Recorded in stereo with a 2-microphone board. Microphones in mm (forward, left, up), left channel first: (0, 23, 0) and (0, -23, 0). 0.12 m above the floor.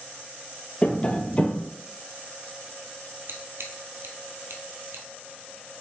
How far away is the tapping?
About 0.8 m.